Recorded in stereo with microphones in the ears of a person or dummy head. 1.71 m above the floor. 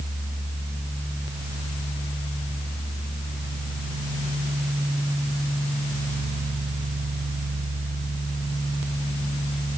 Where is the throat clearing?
No throat clearing in this recording.